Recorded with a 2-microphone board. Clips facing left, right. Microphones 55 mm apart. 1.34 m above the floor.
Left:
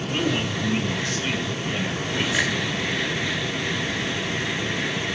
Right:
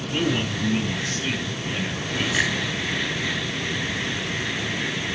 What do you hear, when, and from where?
0.1 s a man speaking: 5° left (ahead or behind), 6.5 m; by 2.4 s centre (ahead or behind), 5.5 m
2.3 s a finger snap: 5° right (ahead or behind), 5.5 m